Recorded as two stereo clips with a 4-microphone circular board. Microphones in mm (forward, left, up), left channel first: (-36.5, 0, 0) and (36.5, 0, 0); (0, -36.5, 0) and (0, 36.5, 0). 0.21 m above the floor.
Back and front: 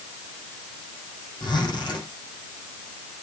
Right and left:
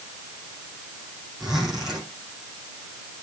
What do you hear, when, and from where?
1.4 s a zipper: 175° left, 7.5 m